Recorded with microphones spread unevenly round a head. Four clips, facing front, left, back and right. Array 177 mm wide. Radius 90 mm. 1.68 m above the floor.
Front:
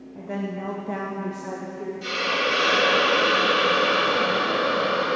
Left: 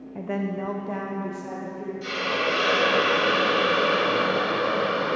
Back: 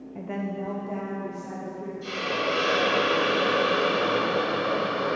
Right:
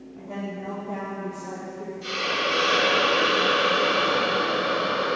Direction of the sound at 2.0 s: 35° left.